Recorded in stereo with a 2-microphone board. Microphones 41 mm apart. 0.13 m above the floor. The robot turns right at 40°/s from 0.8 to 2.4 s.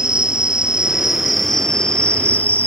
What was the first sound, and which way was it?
An insect, 20° right.